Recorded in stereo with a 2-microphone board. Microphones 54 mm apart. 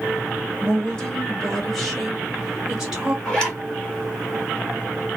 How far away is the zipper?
About 1.7 m.